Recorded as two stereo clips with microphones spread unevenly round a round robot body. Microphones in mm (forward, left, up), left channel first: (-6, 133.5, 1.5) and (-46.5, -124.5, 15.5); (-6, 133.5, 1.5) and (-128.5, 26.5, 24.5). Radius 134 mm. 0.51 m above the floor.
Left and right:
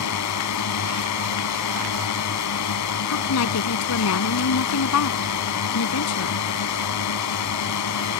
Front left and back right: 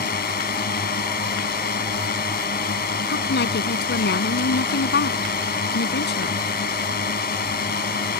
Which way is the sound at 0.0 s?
60° left.